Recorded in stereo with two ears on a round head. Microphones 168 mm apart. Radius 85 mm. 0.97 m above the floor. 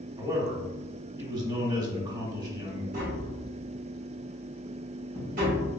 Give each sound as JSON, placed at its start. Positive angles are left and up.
{"t": 0.2, "sound": "a man speaking", "side_deg": -25, "distance_m": 1.3}
{"t": 2.9, "sound": "tapping", "side_deg": -45, "distance_m": 1.9}